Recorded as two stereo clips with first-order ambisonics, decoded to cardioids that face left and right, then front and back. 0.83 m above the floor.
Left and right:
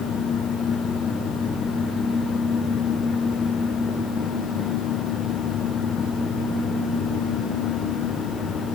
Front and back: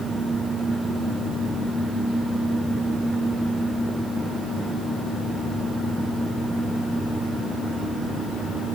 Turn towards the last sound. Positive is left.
No sound to turn to.